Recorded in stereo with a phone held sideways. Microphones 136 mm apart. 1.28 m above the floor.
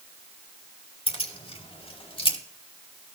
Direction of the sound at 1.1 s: 45° left (ahead or behind).